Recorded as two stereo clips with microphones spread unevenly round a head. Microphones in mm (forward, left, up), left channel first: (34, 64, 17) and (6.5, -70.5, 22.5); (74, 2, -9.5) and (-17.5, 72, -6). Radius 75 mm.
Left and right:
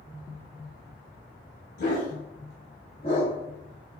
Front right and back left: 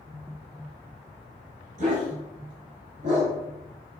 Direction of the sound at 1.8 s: 120° left.